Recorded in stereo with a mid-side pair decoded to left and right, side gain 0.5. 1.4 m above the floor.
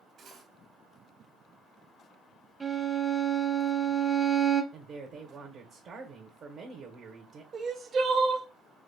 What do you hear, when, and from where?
0.2 s cutlery clinking: 55° right, 1.7 m
2.6 s a violin: 25° right, 0.8 m
4.7 s a woman speaking: 55° right, 1.1 m
7.5 s crying: 45° right, 0.8 m